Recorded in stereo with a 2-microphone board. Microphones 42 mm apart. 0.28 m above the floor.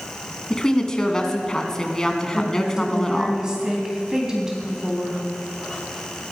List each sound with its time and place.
0.5 s a woman speaking: 15° left (ahead or behind), 2 m
2.3 s a woman speaking: 15° right (ahead or behind), 2.5 m